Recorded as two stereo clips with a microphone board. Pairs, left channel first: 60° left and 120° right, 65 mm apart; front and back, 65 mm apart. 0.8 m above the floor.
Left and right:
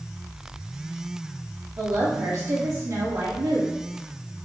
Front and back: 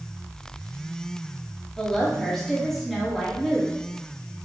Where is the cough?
I don't hear a cough.